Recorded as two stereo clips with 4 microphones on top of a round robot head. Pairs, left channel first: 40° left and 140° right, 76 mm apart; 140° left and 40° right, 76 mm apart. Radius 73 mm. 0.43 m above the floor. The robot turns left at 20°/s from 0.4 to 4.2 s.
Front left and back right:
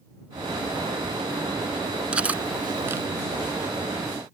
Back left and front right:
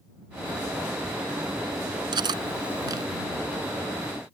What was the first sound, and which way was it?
Cutlery clinking, 65° right.